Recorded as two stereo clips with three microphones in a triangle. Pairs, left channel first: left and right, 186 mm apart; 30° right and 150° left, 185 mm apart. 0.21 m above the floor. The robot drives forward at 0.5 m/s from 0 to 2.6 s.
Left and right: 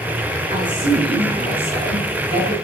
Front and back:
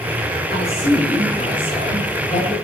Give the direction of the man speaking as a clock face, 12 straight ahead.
1 o'clock.